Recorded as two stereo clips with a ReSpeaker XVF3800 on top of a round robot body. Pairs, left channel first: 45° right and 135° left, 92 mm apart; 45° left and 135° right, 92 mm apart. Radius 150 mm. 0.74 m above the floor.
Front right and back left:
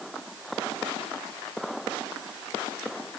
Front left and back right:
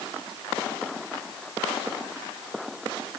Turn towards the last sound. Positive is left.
No sound to turn to.